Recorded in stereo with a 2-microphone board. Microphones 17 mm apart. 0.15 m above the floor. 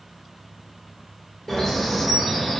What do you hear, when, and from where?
1.5 s a bird: 25° left (ahead or behind), 1.4 m